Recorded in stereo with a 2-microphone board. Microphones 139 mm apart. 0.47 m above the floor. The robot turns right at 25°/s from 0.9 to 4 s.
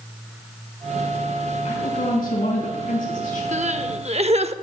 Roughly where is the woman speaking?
Ahead left.